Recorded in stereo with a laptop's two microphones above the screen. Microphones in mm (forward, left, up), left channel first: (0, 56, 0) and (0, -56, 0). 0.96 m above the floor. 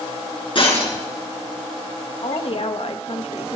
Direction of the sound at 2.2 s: 60° left (ahead or behind).